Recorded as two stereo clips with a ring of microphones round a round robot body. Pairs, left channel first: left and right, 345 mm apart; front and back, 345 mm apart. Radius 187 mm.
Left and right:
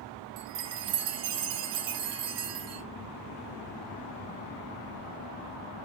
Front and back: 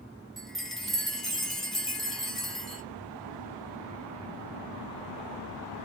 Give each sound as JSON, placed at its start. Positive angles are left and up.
{"t": 0.4, "sound": "a chime", "azimuth_deg": -90, "distance_m": 0.9}